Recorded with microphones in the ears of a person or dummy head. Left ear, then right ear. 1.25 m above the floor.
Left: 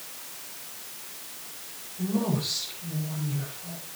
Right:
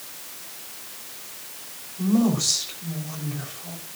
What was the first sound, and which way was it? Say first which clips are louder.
A woman speaking: right 6 dB; 75° right (ahead or behind).